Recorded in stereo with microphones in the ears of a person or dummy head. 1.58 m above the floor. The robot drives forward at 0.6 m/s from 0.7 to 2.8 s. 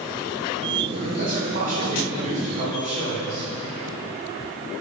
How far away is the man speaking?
About 2.5 m.